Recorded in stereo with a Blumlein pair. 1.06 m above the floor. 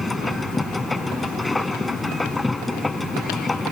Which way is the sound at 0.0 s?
10° left.